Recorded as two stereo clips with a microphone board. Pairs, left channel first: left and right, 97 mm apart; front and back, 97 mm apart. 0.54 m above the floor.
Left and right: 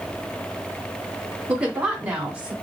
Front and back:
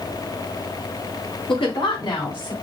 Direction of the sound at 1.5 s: 15° right.